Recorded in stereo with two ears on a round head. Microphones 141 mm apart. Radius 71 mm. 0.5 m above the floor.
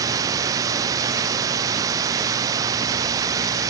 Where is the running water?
20° right (ahead or behind).